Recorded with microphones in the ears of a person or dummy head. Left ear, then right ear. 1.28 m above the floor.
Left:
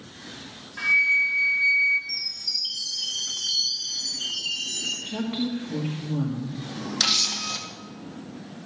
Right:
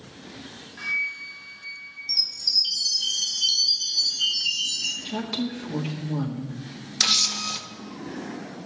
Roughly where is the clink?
No clink in this recording.